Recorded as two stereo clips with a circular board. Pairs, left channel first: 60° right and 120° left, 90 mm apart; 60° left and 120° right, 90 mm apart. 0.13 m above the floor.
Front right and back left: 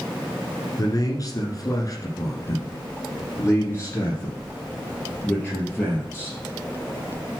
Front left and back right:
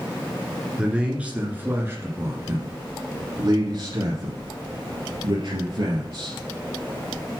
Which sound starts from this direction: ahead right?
A man speaking, at 0.8 s.